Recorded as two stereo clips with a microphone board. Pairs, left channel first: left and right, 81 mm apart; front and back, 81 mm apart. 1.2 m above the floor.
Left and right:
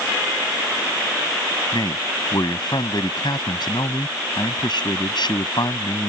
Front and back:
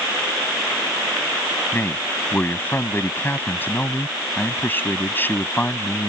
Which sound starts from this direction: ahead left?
A man speaking, at 1.7 s.